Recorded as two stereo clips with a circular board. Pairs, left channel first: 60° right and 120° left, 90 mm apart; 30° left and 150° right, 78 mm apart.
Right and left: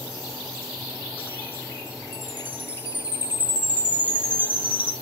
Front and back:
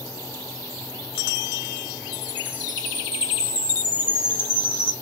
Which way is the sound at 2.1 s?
170° right.